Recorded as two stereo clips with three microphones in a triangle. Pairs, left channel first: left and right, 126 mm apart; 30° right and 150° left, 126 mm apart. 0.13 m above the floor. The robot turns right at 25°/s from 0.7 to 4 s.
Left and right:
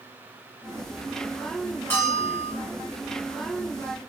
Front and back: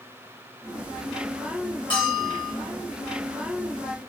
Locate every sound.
1.9 s a bell: 20° left, 2.5 m; by 2.5 s 35° left, 2.5 m